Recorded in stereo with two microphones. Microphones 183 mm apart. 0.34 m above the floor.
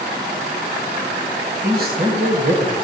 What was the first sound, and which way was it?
A man speaking, 55° right (ahead or behind).